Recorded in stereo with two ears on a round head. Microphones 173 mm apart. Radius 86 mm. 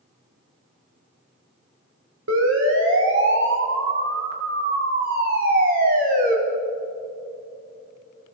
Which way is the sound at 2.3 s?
75° right (ahead or behind).